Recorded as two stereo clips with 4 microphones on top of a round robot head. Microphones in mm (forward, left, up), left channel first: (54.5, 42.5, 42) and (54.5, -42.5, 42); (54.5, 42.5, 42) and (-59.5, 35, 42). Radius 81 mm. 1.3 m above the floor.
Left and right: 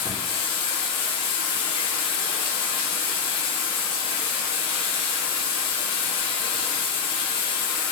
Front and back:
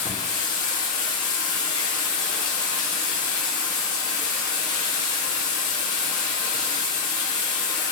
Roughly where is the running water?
Ahead left.